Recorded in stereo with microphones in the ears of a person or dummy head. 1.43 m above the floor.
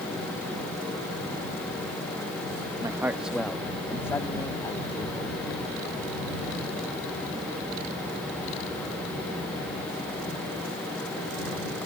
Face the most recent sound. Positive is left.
turn(degrees=25)  # may be behind; listen again after turning